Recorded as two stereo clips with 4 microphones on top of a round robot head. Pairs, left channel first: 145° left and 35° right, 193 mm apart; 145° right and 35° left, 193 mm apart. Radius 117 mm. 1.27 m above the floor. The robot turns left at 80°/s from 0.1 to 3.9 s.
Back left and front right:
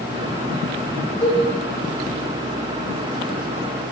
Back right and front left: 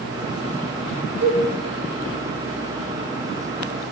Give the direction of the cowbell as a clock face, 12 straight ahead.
9 o'clock.